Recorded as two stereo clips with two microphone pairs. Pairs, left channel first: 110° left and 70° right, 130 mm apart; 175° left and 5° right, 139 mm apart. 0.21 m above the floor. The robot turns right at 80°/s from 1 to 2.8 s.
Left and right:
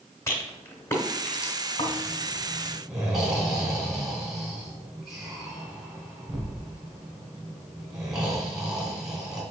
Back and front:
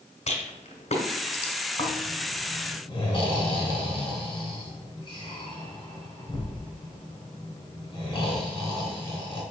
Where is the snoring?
125° left, 1.9 m; by 9.4 s 155° right, 1.9 m.